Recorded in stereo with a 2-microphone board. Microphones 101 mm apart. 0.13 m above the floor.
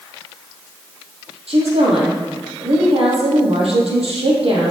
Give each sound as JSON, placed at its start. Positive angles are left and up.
{"t": 1.5, "sound": "a woman speaking", "side_deg": -70, "distance_m": 3.5}